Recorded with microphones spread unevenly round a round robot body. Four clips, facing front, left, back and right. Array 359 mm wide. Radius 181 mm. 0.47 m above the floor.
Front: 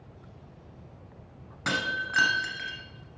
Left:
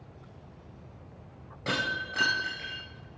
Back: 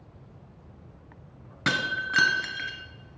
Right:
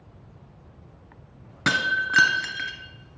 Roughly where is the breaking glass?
Right.